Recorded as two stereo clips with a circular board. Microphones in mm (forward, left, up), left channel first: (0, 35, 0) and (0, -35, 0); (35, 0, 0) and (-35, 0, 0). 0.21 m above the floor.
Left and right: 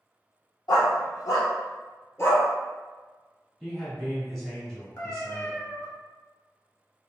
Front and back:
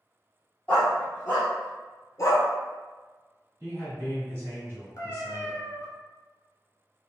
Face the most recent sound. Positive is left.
turn(degrees=40)